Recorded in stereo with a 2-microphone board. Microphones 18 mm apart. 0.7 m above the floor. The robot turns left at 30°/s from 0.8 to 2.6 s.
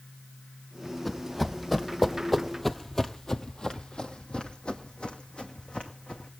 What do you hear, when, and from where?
1.1 s running footsteps: 10° left (ahead or behind), 1.4 m; by 6.3 s 75° left (ahead or behind), 2.5 m